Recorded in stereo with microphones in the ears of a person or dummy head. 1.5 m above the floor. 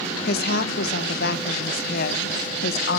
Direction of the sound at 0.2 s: 60° left (ahead or behind).